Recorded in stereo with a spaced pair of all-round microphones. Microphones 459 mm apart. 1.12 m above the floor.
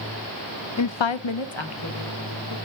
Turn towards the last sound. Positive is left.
turn(degrees=60)  # may be behind; listen again after turning